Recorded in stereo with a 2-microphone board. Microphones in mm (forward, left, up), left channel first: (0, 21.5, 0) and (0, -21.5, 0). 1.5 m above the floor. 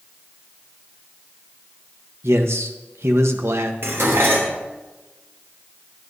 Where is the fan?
No fan in this recording.